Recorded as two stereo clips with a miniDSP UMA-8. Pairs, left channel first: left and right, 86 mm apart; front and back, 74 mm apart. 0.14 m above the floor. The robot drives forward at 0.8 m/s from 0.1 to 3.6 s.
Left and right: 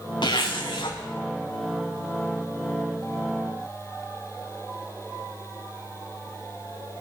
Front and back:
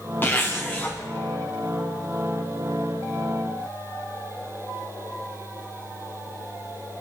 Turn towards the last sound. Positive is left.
turn(degrees=105)